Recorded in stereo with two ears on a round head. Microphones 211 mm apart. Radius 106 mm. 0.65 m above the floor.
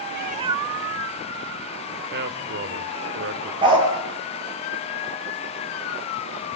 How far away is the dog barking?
About 4.5 m.